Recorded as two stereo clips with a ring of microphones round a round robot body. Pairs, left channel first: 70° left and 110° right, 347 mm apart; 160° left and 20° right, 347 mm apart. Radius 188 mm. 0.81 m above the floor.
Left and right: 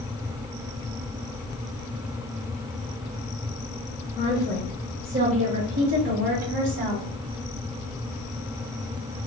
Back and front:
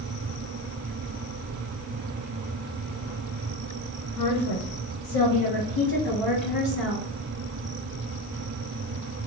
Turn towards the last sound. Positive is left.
turn(degrees=-145)